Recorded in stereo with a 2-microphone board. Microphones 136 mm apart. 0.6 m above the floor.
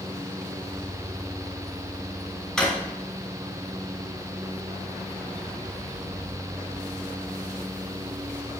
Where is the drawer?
5° left (ahead or behind), 2.5 m.